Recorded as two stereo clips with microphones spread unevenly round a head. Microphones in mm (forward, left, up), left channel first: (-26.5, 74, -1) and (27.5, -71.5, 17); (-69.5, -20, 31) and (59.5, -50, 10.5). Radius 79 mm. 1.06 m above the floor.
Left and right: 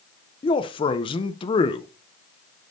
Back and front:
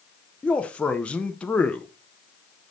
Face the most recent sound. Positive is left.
turn(degrees=80)